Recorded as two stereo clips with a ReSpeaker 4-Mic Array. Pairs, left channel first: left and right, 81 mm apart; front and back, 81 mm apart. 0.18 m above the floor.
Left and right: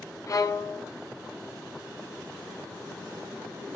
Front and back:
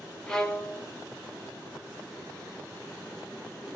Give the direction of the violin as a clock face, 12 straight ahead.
9 o'clock.